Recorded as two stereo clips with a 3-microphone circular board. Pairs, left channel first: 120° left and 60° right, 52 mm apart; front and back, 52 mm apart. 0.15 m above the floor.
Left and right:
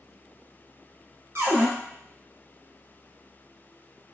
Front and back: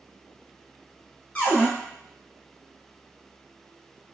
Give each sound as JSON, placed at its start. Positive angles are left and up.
{"t": 1.4, "sound": "a cupboard door", "azimuth_deg": -60, "distance_m": 1.1}